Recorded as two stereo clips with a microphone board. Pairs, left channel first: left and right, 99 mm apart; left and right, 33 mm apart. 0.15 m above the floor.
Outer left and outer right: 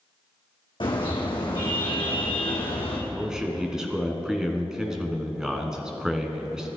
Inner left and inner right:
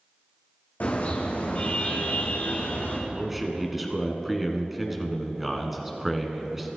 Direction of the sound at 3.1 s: 5° right (ahead or behind).